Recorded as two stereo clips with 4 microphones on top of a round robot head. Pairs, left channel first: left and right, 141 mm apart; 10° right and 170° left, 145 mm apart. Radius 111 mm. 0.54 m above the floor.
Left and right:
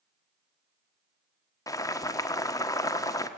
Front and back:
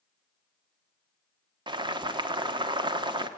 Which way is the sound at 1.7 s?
140° left.